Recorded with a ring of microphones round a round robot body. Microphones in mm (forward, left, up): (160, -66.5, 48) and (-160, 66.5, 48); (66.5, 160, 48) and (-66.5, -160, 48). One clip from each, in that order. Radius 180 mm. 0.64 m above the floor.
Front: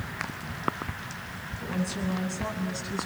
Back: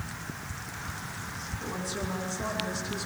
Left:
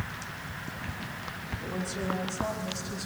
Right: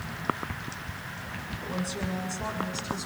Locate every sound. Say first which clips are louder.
1.6 s a woman speaking: front 2 dB, right 1 dB; 105° right, 8.5 m